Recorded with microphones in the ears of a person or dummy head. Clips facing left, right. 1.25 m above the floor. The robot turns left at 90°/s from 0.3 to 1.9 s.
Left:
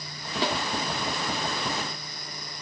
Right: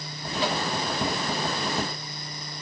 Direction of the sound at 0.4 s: 35° left (ahead or behind).